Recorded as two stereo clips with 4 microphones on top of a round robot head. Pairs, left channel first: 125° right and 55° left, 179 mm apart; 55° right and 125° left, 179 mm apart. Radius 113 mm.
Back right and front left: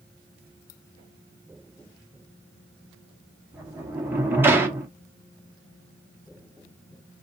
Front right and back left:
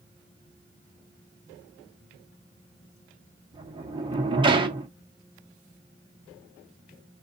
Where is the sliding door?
120° left, 0.9 m.